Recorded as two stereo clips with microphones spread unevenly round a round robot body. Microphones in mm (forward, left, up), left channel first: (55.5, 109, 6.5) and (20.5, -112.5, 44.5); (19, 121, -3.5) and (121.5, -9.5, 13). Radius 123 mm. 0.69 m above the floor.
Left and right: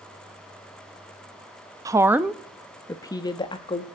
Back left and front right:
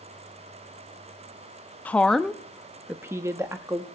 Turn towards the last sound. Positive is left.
turn(degrees=20)